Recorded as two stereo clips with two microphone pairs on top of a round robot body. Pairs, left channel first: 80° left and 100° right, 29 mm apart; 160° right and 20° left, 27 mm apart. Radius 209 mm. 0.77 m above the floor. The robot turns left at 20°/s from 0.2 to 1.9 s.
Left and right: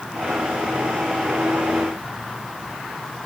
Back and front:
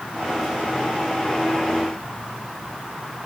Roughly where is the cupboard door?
I don't hear a cupboard door.